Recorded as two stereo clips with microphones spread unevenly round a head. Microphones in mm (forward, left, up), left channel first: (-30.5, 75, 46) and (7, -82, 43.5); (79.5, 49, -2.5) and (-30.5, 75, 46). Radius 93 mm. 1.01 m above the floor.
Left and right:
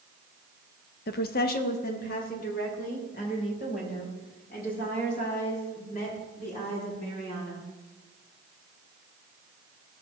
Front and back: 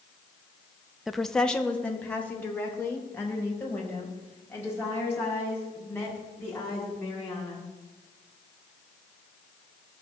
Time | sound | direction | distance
1.1 | a woman speaking | 70° left | 0.8 m